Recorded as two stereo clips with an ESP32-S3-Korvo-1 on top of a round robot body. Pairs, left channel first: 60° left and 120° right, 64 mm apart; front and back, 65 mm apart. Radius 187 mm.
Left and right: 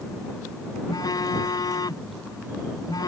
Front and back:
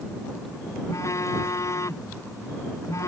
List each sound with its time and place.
0.9 s a phone buzzing: 40° left